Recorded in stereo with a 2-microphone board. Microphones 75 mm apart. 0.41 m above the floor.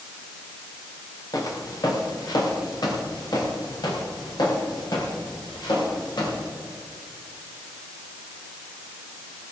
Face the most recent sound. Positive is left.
turn(degrees=70)  # may be behind; listen again after turning